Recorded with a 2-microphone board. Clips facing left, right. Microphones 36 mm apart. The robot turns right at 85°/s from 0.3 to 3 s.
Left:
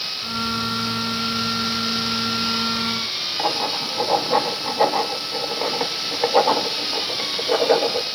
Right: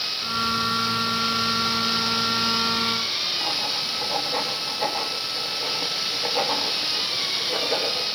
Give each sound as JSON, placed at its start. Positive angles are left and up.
{"t": 3.4, "sound": "writing", "side_deg": 70, "distance_m": 1.9}